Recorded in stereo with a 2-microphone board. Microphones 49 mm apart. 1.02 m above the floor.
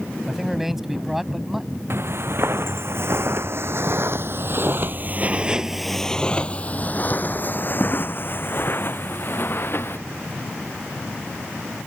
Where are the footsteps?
55° right (ahead or behind); by 10.0 s 50° left (ahead or behind).